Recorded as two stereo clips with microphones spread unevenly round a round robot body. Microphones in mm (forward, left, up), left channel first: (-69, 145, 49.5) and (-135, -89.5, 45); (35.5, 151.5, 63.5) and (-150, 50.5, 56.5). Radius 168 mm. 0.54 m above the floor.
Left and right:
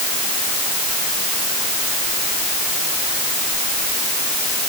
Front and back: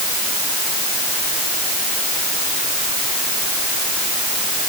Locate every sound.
Only background noise.